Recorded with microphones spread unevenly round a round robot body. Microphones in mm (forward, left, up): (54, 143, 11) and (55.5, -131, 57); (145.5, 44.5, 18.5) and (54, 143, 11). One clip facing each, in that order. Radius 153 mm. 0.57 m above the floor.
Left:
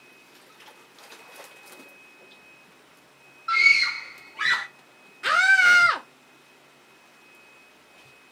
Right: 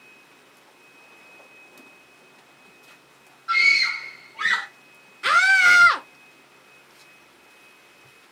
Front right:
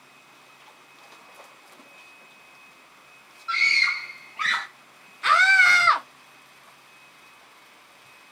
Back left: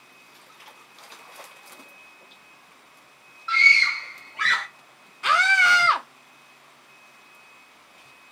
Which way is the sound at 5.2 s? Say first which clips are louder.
Right 1 dB, front right 1 dB; 175° left.